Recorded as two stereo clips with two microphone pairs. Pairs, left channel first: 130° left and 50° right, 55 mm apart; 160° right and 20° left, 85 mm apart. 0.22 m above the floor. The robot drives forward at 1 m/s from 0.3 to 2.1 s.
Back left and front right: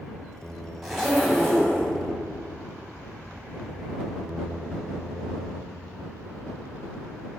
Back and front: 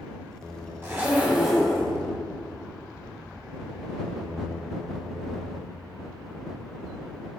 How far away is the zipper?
About 1.8 m.